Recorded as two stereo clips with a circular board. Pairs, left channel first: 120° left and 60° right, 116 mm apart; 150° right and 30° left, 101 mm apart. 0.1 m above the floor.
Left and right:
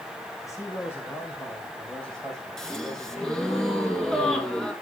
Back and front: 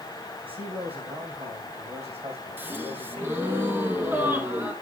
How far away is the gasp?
About 1.3 m.